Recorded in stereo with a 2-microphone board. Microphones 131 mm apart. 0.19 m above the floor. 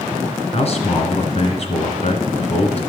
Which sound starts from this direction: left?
A man speaking, at 0.5 s.